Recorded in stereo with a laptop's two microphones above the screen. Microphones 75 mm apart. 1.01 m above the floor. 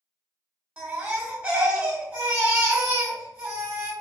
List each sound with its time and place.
0.8 s a baby crying: 20° right (ahead or behind), 1.0 m